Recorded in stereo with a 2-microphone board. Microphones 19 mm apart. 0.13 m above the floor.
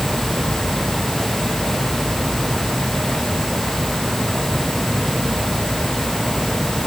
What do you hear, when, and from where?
Only background noise.